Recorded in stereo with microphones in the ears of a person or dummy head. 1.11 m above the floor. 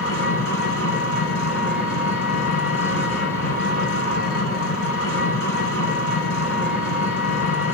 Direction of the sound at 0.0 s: 85° left.